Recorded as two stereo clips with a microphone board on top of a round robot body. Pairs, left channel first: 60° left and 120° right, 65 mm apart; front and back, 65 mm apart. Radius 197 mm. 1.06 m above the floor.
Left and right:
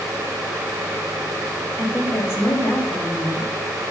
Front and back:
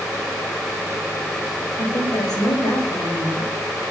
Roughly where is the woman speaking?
Ahead.